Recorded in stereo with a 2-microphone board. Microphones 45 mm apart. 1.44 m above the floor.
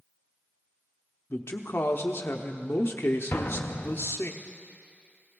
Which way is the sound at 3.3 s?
55° left (ahead or behind).